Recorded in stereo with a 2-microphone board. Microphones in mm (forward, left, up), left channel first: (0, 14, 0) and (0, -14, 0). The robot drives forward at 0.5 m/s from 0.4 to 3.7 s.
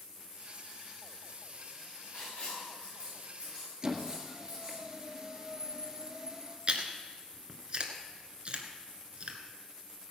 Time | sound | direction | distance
2.1 | writing | 40° left (ahead or behind) | 7 m
3.8 | a squeak | 25° right (ahead or behind) | 1.8 m
6.7 | chewing | 40° right (ahead or behind) | 1.6 m